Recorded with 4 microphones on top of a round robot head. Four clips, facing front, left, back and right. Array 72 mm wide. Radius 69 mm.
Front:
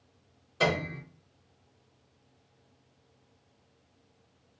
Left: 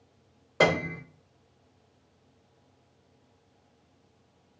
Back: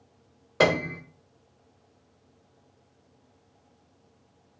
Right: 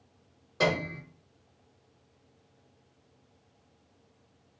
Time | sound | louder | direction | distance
0.6 | a piano | left 4 dB, back 5 dB | 150° left | 0.6 m